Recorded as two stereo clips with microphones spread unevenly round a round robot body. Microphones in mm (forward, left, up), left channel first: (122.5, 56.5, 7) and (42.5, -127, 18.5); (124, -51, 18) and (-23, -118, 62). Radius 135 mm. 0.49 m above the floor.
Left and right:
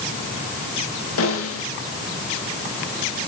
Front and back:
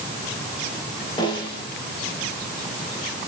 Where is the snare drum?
90° left, 7.5 m.